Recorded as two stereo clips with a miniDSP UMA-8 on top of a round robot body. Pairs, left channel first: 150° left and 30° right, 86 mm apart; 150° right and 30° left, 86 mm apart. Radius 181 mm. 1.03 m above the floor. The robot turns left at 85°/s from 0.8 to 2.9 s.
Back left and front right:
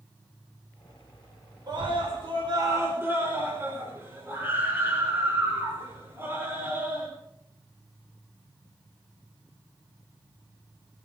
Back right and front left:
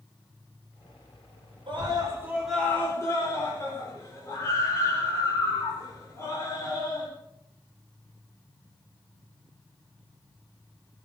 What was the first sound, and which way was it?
A scream, 10° left.